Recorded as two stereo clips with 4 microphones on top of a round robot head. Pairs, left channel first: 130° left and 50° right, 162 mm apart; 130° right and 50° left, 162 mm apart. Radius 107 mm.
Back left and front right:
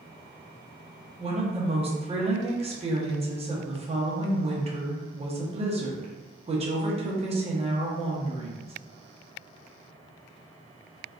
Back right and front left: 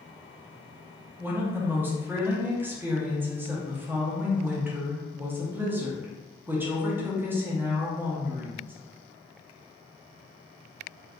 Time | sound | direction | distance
1.2 | a woman speaking | 20° right | 0.9 m